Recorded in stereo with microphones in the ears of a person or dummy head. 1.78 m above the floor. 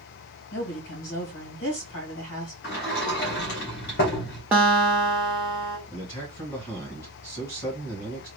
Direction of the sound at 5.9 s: 20° left (ahead or behind).